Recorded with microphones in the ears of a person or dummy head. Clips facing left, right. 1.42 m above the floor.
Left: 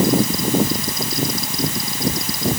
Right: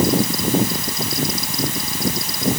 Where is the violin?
I don't hear a violin.